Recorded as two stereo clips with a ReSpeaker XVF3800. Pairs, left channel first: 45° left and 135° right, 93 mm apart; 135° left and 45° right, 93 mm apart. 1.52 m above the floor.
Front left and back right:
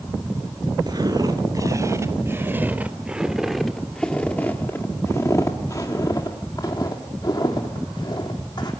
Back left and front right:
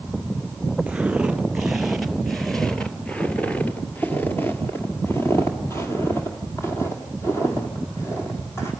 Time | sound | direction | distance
0.9 | footsteps | 120° right | 2 m